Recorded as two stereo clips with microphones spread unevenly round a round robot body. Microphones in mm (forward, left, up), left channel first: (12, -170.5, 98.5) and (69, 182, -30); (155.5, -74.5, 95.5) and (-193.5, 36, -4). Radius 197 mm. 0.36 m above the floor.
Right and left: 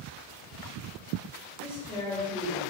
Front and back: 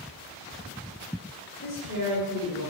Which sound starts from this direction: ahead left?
A man speaking, at 1.6 s.